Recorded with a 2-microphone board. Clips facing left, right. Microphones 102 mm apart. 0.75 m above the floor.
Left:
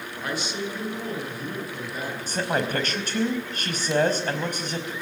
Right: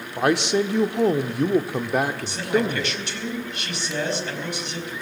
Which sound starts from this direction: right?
A man speaking, at 0.2 s.